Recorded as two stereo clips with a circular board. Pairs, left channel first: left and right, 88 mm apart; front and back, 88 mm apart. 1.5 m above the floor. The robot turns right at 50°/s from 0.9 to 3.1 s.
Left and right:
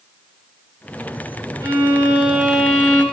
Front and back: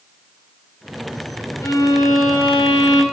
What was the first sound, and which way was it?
A violin, 50° right.